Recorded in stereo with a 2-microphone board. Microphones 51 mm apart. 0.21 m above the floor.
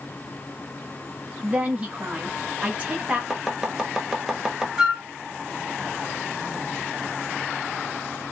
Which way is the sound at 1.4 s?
20° right (ahead or behind).